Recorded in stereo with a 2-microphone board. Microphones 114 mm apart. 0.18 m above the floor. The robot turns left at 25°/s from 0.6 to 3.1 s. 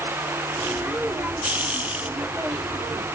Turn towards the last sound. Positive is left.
No sound to turn to.